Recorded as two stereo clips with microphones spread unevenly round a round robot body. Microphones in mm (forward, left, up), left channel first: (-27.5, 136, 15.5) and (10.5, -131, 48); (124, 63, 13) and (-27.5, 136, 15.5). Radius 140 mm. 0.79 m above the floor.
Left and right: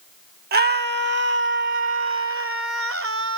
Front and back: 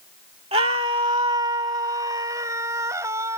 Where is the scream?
140° right; by 3.4 s 125° right.